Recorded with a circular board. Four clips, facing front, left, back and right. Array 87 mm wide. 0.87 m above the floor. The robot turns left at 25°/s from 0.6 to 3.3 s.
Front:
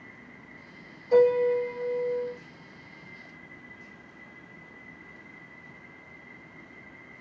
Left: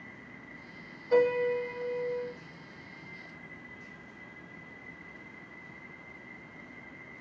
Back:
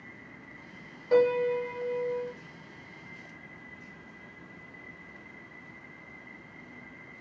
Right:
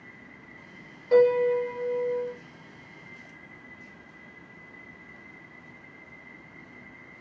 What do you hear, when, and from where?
1.1 s a piano: 145° right, 1.8 m; by 2.3 s 175° right, 1.8 m